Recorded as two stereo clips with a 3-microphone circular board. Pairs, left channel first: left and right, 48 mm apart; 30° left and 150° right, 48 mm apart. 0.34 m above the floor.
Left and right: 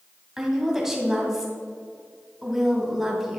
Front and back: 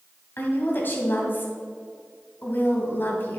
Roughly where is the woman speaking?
Ahead.